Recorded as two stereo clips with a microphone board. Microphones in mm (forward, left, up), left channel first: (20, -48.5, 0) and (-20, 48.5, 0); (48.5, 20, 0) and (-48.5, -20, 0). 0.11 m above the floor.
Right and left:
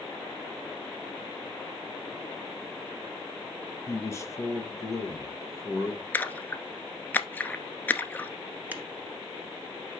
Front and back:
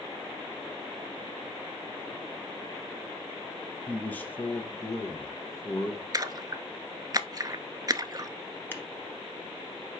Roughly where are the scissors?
Ahead left.